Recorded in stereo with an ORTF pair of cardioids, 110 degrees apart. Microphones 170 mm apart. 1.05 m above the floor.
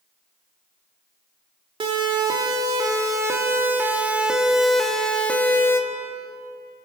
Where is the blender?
No blender in this recording.